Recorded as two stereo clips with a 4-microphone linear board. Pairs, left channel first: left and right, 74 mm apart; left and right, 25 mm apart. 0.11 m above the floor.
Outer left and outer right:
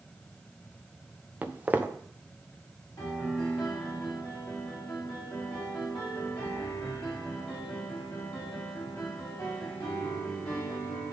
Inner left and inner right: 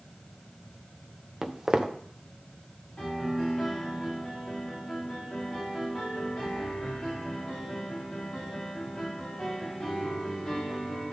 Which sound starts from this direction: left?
A piano, at 3.0 s.